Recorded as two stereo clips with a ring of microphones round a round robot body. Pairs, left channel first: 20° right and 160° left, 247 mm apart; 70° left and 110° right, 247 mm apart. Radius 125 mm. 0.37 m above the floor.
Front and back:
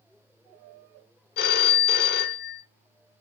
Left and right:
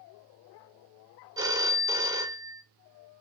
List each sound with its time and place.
1.4 s a phone ringing: 45° right, 0.6 m